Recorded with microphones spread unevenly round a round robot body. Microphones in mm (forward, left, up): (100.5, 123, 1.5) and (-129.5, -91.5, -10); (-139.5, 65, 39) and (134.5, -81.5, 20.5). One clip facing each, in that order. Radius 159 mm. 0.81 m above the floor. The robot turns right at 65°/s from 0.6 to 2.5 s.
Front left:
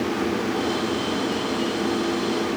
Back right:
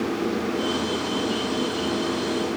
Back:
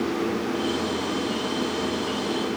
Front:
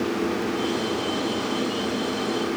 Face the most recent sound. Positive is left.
No sound to turn to.